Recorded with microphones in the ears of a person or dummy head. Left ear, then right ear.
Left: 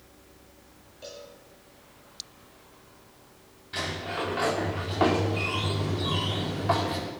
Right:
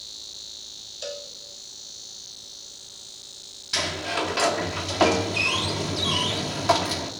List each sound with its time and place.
1.0 s a cowbell: 50° right (ahead or behind), 1.4 m
3.7 s a sliding door: 85° right, 1.6 m